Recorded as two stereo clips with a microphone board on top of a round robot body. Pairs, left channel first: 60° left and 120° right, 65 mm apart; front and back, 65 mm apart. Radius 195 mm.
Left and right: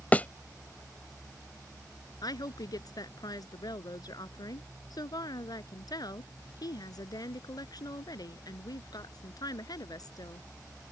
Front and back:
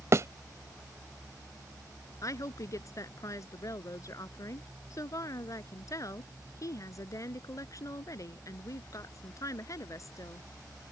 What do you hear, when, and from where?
0.1 s a thud: 130° left
2.2 s a woman speaking: 40° left